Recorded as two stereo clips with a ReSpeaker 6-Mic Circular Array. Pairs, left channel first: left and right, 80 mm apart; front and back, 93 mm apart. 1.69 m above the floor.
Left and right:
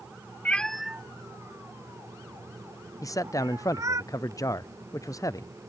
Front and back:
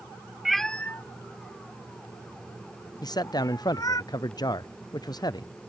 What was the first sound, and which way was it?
A cat meowing, 95° left.